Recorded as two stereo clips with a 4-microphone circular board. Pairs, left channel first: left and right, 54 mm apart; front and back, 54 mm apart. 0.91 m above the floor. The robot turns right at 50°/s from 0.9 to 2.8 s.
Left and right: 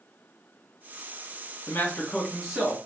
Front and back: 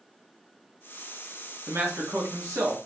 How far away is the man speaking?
About 1.6 m.